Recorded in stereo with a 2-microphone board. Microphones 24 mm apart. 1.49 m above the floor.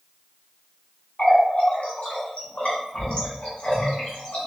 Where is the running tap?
50° left (ahead or behind), 1.0 m.